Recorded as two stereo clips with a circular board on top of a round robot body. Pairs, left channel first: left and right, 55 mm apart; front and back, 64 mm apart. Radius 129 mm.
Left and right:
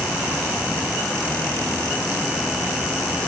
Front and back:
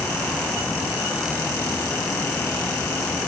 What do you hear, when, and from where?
Only background noise.